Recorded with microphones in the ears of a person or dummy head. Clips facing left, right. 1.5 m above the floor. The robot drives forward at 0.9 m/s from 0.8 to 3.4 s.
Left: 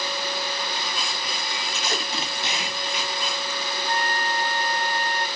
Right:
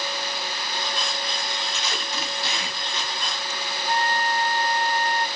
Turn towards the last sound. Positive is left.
turn(degrees=-15)  # may be behind; listen again after turning